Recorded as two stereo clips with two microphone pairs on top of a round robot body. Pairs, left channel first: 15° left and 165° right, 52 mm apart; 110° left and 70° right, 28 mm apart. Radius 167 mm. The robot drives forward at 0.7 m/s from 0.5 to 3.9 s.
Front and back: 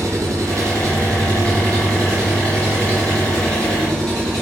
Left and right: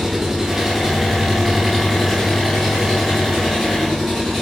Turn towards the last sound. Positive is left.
turn(degrees=-170)